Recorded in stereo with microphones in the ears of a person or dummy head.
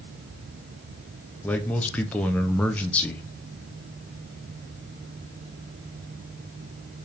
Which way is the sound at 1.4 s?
10° left (ahead or behind).